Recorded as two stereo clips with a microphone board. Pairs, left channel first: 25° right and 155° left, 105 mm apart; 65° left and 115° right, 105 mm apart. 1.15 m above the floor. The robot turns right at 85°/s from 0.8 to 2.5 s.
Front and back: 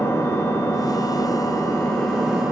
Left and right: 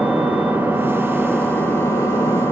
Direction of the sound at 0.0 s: 55° right.